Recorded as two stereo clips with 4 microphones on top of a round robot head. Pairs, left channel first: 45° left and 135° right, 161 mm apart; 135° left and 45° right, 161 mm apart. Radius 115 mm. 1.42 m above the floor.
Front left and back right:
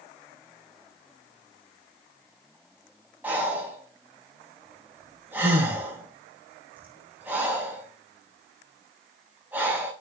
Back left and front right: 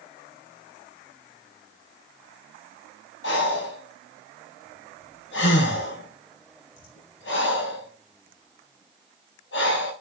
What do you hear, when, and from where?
3.2 s breathing: 145° left, 3 m